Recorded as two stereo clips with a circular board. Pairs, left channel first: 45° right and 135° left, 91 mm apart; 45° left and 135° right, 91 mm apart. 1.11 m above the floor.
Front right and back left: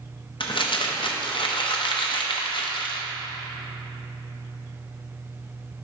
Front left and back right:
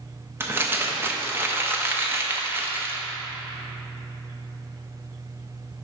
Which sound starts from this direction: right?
Crumpling, at 0.4 s.